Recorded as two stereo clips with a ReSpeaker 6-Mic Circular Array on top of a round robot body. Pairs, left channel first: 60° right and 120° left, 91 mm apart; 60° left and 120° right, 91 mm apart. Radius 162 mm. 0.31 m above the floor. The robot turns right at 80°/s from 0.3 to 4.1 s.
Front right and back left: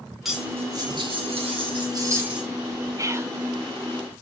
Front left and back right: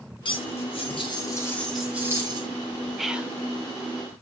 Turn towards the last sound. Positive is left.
turn(degrees=-120)